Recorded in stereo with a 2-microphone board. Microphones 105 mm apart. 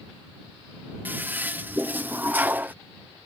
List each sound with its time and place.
1.1 s a toilet flushing: 20° right (ahead or behind)